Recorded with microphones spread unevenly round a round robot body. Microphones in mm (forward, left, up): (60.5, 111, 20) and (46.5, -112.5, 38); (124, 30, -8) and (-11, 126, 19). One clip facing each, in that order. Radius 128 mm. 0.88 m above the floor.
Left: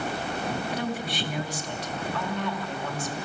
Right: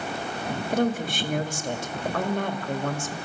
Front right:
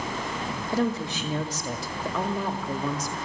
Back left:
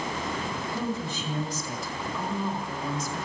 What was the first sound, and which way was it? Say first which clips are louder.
A woman speaking: right 6 dB, front right 8 dB; 50° right.